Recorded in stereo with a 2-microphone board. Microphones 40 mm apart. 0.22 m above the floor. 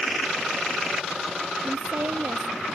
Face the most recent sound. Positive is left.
turn(degrees=-70)  # may be behind; listen again after turning